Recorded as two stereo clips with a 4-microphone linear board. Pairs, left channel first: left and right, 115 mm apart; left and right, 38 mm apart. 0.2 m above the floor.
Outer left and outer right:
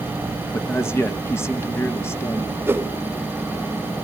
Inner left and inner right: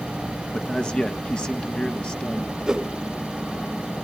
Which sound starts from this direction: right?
A whoosh, at 2.7 s.